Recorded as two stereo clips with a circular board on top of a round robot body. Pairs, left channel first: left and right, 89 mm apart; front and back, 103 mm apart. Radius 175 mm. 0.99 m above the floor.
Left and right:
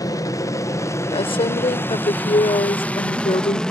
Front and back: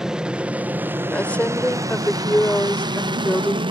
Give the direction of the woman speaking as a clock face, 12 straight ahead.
9 o'clock.